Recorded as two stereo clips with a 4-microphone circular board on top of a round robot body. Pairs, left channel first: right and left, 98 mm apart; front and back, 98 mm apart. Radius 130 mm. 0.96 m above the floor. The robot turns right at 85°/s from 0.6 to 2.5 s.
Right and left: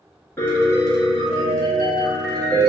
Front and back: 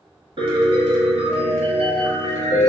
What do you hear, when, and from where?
0.4 s a piano: 155° right, 1.6 m; by 2.7 s 10° left, 1.6 m